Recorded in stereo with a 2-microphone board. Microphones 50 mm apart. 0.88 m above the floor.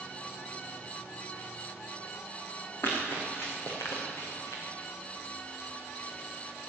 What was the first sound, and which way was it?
Running footsteps, 45° left (ahead or behind).